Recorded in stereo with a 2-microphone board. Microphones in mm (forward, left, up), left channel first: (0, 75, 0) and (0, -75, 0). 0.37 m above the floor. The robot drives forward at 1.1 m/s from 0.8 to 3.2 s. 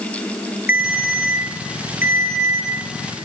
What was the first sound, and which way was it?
A ringtone, 80° left.